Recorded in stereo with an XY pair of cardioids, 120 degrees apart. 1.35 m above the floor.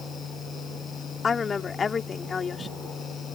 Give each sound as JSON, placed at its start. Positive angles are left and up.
{"t": 0.0, "sound": "a fan", "azimuth_deg": 40}
{"t": 1.2, "sound": "a woman speaking", "azimuth_deg": 30}